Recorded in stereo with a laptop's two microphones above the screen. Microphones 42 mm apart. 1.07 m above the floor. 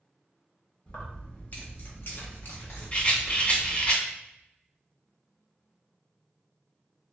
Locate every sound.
0.9 s keys jangling: 30° left (ahead or behind), 1.3 m; by 3.9 s 55° left (ahead or behind), 1.0 m
2.9 s a rattle: 25° left (ahead or behind), 1.5 m